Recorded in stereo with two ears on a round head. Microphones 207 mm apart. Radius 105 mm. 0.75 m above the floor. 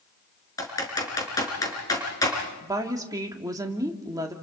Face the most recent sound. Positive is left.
turn(degrees=-15)  # may be behind; listen again after turning